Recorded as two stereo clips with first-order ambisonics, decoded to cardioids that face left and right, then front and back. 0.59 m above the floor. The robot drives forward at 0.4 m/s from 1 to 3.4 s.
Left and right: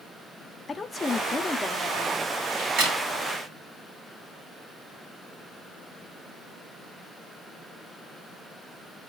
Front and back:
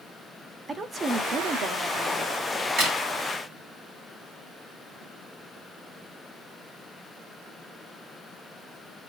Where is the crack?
135° right, 3.5 m.